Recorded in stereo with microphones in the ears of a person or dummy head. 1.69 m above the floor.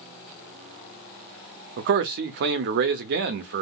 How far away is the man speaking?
About 0.5 m.